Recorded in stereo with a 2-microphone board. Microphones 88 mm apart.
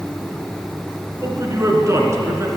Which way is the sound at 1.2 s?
35° right (ahead or behind).